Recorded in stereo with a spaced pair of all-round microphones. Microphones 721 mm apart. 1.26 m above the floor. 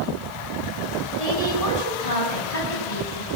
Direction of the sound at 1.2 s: 55° left (ahead or behind).